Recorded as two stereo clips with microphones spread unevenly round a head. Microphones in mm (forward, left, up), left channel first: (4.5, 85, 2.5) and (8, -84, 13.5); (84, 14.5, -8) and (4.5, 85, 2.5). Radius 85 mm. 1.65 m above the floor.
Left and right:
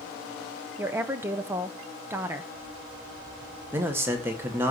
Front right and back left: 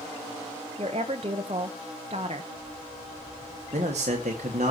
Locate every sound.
0.8 s a woman speaking: 165° right, 0.9 m
3.7 s a man speaking: 165° right, 1.8 m